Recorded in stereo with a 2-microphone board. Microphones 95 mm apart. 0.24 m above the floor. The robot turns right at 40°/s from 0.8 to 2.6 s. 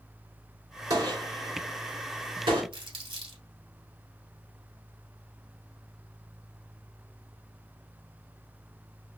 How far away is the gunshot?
About 1.8 m.